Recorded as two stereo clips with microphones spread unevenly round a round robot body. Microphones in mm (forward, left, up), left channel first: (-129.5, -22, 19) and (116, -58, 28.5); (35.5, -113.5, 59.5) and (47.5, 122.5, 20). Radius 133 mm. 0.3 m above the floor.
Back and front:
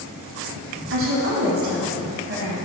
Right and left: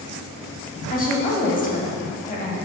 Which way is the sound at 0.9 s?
35° right.